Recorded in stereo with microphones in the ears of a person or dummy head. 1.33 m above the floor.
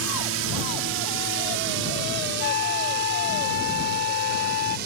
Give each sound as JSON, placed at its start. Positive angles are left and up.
{"t": 0.0, "sound": "a drone", "side_deg": -70}
{"t": 2.4, "sound": "a flute", "side_deg": 50}